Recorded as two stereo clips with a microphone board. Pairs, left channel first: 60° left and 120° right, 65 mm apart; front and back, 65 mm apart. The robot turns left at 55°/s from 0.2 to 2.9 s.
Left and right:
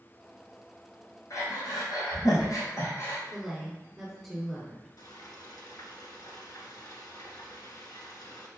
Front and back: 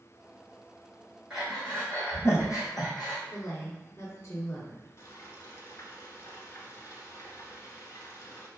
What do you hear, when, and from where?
1.3 s breathing: 100° left, 3 m; by 3.2 s 10° left, 3 m
3.3 s a woman speaking: 30° right, 2 m
5.0 s frying: 40° left, 1.5 m